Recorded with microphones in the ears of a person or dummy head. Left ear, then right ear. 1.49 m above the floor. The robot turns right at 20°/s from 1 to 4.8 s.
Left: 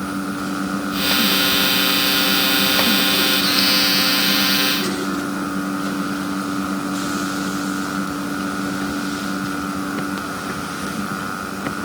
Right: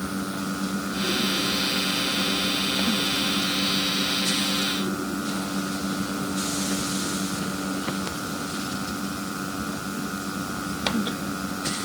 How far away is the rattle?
No rattle in this recording.